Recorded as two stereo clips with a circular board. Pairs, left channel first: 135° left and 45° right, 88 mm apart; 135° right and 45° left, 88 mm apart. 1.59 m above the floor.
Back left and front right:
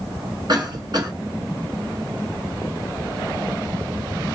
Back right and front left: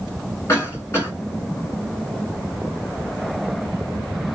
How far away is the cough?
About 2.5 m.